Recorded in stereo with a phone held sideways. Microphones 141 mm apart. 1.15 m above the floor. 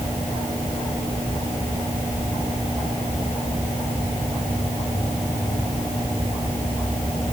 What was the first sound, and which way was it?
Only background noise.